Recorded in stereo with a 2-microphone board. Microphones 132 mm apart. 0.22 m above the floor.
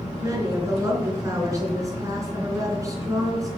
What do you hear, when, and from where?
0.2 s a woman speaking: 25° right (ahead or behind), 3 m